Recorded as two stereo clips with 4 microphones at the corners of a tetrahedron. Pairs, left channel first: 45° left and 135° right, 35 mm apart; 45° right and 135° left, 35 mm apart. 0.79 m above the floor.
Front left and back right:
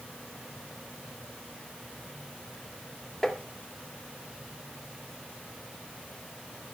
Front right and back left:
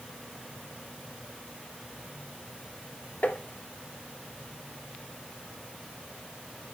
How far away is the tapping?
About 1.9 m.